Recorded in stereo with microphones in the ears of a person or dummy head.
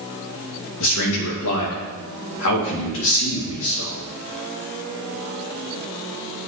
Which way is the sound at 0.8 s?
70° left (ahead or behind).